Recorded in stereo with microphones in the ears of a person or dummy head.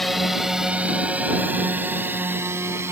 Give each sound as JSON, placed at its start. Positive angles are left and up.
{"t": 0.0, "sound": "a drone", "side_deg": 0}